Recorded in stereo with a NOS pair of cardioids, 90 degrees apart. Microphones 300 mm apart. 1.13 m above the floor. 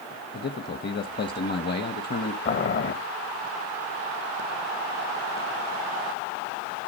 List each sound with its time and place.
0.3 s a man speaking: 35° left, 1.1 m
2.5 s boiling: 40° left, 1.3 m